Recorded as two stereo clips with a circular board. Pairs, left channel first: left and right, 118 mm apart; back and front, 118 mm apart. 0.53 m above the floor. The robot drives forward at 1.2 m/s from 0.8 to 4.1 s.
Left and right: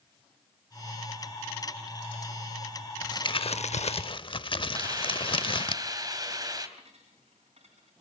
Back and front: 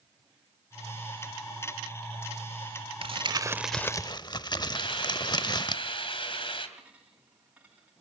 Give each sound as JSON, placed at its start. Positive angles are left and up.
{"t": 3.0, "sound": "crumpling", "azimuth_deg": 35, "distance_m": 1.0}
{"t": 4.7, "sound": "a hiss", "azimuth_deg": -145, "distance_m": 2.5}
{"t": 6.8, "sound": "a dropped coin", "azimuth_deg": -80, "distance_m": 8.0}